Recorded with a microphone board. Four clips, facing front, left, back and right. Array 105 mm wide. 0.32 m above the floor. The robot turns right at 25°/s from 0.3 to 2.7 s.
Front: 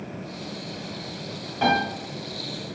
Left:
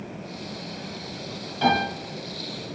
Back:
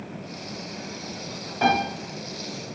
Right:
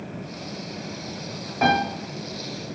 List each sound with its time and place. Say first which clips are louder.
1.6 s a piano: right 1 dB, even; 105° right, 1.8 m; by 1.8 s 100° right, 1.8 m